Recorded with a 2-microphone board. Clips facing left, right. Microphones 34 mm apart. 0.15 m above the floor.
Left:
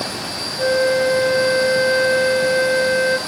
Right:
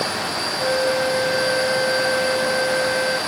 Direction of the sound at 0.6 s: 35° left (ahead or behind).